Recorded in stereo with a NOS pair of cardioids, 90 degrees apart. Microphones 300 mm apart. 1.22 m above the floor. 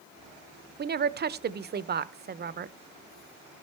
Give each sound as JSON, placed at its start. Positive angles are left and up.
{"t": 0.8, "sound": "a woman speaking", "azimuth_deg": -35, "distance_m": 0.6}